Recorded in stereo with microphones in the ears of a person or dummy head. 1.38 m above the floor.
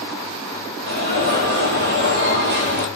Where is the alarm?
60° right (ahead or behind), 0.9 m.